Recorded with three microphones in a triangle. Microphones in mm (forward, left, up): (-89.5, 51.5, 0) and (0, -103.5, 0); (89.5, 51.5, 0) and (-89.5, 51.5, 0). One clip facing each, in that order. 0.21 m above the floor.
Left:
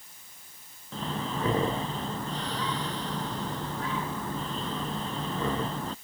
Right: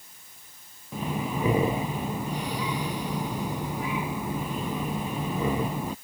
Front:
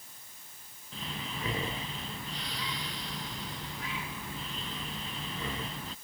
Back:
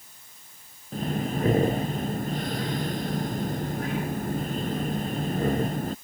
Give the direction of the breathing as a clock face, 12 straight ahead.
5 o'clock.